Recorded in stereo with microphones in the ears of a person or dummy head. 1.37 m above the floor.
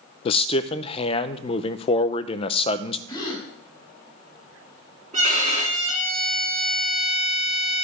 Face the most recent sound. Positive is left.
turn(degrees=-45)  # may be behind; listen again after turning